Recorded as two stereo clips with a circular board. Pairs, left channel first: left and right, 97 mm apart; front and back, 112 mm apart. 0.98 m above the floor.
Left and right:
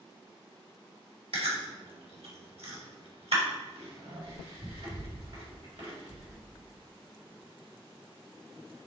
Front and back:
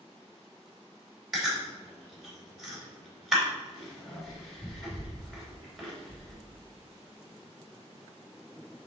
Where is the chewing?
95° right, 3.5 m.